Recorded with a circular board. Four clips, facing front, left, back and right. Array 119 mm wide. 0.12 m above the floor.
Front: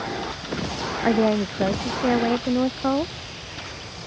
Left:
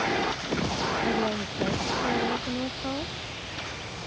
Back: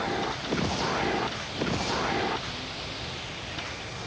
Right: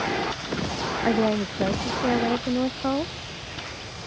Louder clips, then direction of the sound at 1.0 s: Right 10 dB, front 10 dB; 20° right.